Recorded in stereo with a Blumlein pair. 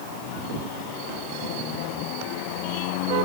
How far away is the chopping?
I don't hear chopping.